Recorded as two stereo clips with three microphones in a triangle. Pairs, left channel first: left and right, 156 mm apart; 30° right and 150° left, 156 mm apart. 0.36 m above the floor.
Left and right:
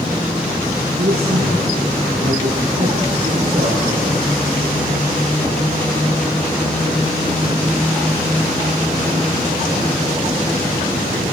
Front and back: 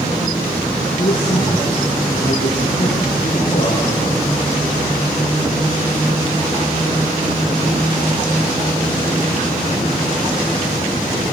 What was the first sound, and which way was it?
A man speaking, 55° right.